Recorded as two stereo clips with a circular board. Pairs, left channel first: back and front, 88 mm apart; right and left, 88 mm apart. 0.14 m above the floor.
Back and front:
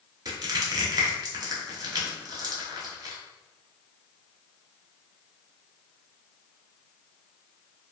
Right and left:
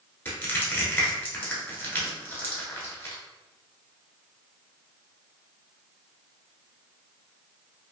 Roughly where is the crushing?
Ahead right.